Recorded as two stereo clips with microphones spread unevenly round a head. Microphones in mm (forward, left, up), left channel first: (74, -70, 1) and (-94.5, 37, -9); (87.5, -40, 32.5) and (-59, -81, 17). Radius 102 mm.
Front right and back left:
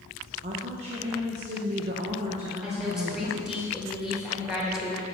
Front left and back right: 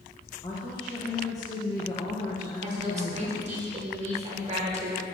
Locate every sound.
0.4 s a woman speaking: 90° left, 0.6 m
2.6 s a woman speaking: 125° right, 1.6 m